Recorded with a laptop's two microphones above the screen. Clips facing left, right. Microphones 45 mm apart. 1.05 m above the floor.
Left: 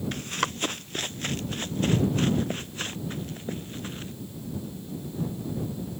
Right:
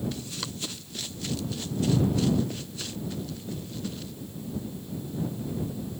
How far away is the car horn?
I don't hear a car horn.